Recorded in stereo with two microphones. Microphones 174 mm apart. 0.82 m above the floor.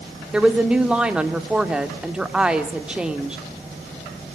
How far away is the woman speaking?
About 1.6 m.